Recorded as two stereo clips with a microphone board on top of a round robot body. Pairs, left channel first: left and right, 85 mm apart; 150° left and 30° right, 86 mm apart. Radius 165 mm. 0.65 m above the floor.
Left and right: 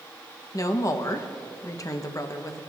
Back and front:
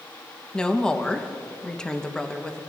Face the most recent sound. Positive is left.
turn(degrees=75)